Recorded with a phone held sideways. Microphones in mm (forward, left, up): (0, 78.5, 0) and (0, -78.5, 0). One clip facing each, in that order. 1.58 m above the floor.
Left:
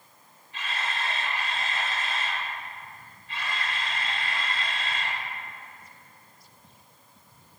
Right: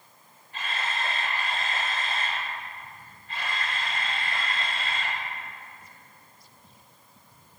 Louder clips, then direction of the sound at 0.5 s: Right 1 dB; 50° right (ahead or behind).